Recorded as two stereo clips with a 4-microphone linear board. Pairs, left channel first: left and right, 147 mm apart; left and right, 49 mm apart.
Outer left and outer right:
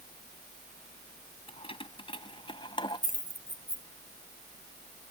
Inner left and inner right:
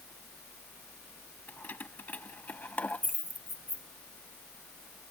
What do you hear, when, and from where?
1.5 s keys jangling: 40° left (ahead or behind); by 3.9 s 30° left (ahead or behind)